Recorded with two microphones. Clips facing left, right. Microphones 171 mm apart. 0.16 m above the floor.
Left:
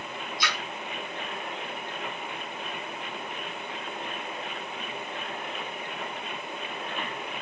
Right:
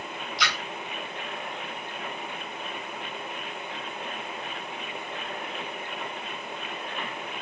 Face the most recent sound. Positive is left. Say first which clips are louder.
# right 2 dB
turn(degrees=-85)